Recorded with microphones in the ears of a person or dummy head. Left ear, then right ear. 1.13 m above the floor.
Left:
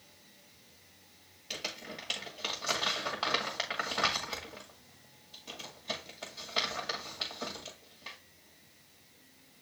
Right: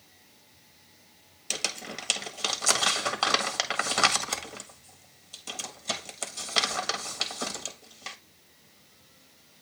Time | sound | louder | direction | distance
1.5 | crumpling | right 7 dB | 75° right (ahead or behind) | 1.6 m